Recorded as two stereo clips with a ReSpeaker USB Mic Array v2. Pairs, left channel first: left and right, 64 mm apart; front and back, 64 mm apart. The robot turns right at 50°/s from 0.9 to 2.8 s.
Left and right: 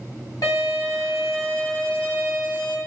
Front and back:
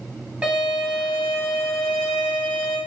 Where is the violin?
105° left, 2 m; by 2.8 s 160° right, 2 m.